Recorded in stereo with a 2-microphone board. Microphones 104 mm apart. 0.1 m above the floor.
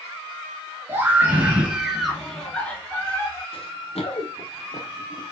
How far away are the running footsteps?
About 1.5 m.